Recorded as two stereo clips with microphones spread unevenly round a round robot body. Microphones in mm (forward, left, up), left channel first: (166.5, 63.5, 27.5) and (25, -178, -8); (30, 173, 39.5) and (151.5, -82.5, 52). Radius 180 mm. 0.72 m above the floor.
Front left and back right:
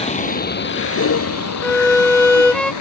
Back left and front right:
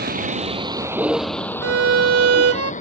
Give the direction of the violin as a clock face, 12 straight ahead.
1 o'clock.